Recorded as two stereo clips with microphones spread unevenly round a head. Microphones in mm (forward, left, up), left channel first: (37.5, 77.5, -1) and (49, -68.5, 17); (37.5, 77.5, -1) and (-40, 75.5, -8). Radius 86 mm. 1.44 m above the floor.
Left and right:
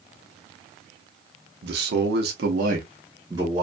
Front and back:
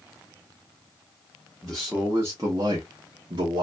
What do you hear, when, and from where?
1.6 s a man speaking: 85° right, 0.8 m; by 3.6 s 165° right, 0.8 m